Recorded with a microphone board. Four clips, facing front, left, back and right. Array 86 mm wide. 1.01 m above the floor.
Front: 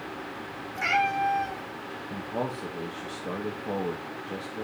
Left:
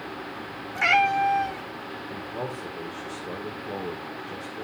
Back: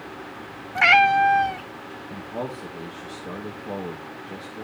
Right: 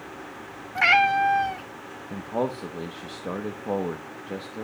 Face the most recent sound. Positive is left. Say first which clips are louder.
# right 7 dB, even
turn(degrees=-85)